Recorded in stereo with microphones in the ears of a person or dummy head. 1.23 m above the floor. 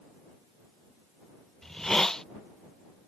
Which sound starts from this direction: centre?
A hiss, at 1.6 s.